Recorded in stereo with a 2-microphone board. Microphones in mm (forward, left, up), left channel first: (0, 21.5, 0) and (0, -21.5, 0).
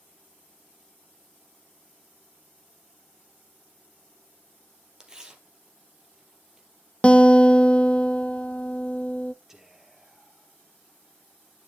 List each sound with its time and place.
5.0 s tearing paper: 15° right (ahead or behind), 2.5 m
7.0 s a guitar: 25° left (ahead or behind), 0.6 m
9.5 s whispering: 10° right (ahead or behind), 2.5 m